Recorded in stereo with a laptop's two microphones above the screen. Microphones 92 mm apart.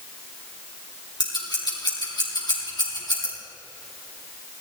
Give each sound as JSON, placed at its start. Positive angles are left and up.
{"t": 1.2, "sound": "scissors", "side_deg": 50, "distance_m": 4.5}